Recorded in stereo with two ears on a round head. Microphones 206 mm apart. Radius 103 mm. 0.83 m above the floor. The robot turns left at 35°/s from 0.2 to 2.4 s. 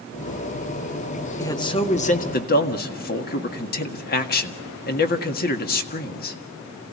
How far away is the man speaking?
About 1.8 m.